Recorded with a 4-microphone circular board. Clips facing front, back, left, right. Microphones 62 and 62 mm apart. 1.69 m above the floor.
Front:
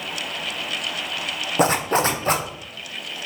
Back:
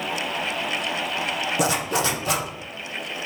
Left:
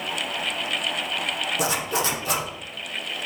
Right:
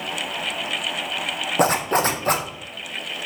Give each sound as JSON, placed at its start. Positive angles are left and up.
{"t": 1.6, "sound": "a zipper", "azimuth_deg": -45, "distance_m": 0.6}